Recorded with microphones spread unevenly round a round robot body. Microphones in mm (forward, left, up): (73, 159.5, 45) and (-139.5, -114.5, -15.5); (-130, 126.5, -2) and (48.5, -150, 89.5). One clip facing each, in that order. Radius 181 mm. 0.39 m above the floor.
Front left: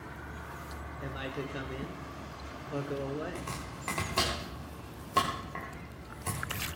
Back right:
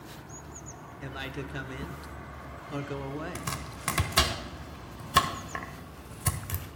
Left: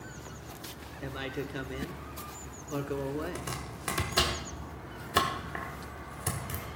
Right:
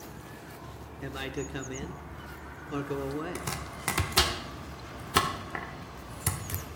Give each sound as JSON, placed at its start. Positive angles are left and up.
{"t": 1.0, "sound": "a man speaking", "azimuth_deg": -165, "distance_m": 1.1}
{"t": 3.4, "sound": "chopping", "azimuth_deg": -135, "distance_m": 1.6}